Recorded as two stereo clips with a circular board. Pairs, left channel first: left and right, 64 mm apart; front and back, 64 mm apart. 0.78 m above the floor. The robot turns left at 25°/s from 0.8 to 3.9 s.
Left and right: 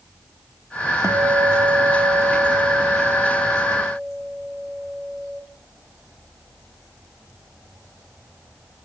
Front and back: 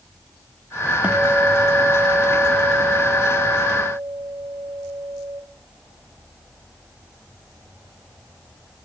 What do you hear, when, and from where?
1.0 s a guitar: 115° right, 1.6 m; by 5.4 s 175° left, 1.6 m